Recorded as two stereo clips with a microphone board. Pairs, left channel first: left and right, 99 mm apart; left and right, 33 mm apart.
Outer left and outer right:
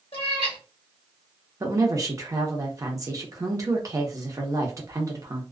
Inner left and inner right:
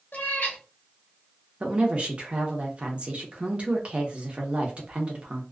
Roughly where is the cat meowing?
Left.